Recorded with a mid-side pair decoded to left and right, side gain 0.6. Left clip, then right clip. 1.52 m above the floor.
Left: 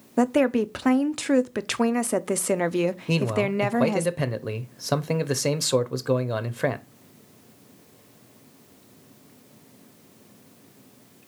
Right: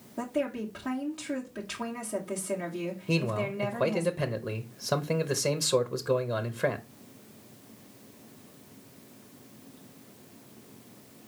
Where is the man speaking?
30° left, 0.6 m.